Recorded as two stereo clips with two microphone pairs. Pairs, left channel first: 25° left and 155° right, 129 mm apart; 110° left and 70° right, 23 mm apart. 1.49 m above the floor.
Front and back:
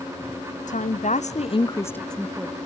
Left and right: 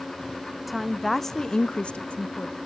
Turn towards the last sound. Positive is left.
turn(degrees=130)